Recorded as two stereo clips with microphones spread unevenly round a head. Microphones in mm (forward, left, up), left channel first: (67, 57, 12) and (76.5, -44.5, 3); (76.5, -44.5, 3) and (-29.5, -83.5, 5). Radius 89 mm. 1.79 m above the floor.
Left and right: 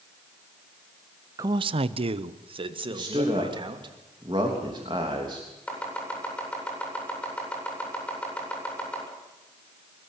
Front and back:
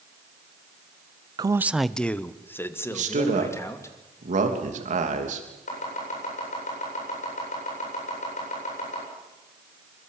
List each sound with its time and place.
1.4 s a man speaking: 145° right, 0.5 m; by 3.9 s 45° right, 3 m
2.9 s a man speaking: 150° right, 3 m
5.7 s chopping: 20° left, 8.5 m